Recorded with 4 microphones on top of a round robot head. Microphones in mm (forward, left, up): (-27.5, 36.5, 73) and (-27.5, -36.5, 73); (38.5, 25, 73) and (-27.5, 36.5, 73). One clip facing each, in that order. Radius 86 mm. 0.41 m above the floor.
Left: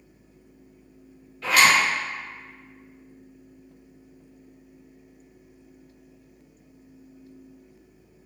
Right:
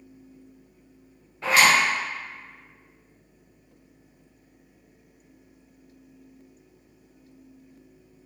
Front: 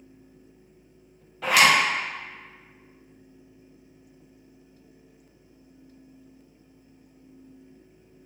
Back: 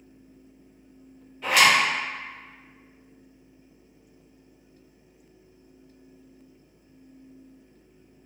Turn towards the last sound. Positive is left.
turn(degrees=-25)